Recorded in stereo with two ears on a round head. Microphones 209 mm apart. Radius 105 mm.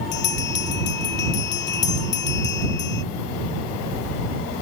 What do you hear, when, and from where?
0.1 s a bell: 55° left (ahead or behind)